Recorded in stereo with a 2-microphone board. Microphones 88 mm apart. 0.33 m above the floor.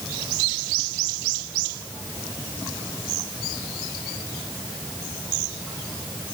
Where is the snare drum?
I don't hear a snare drum.